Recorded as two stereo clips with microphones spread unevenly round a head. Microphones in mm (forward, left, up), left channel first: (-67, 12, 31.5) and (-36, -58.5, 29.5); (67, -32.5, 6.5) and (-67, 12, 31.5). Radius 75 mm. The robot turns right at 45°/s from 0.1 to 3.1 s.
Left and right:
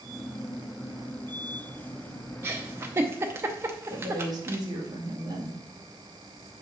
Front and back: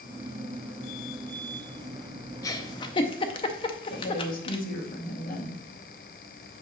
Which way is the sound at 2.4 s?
80° right.